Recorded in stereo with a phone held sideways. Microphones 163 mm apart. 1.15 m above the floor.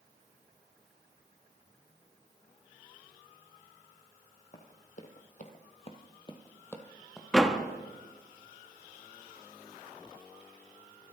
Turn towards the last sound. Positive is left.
turn(degrees=0)  # may be behind; listen again after turning